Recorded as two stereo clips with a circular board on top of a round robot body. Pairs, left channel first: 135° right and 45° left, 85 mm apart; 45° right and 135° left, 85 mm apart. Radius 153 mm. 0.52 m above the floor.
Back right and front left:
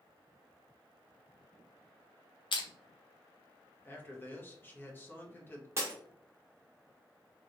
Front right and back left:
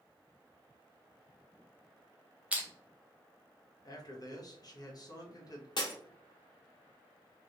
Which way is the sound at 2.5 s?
150° right.